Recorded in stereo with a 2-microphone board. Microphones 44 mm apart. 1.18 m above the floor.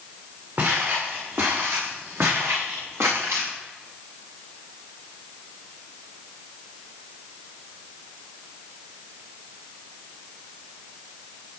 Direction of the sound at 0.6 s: 55° right (ahead or behind).